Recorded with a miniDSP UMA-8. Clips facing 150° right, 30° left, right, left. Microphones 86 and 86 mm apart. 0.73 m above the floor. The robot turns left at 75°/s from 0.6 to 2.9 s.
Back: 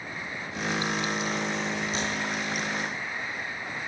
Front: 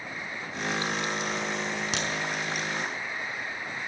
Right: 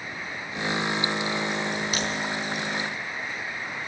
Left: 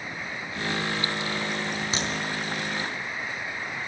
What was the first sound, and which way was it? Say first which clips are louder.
A crack: back 1 dB, right 1 dB; 25° left.